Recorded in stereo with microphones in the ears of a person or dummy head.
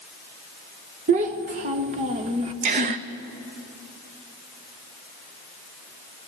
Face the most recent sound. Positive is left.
turn(degrees=-35)  # may be behind; listen again after turning